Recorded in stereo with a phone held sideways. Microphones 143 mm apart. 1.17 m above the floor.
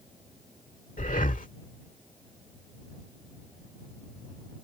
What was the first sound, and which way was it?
Breathing, 70° left (ahead or behind).